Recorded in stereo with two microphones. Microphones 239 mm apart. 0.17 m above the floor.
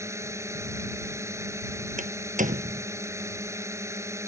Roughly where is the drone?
Centre.